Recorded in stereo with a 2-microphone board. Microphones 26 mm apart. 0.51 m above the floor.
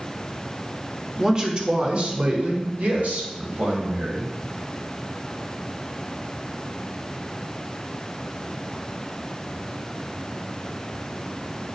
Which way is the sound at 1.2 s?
25° right (ahead or behind).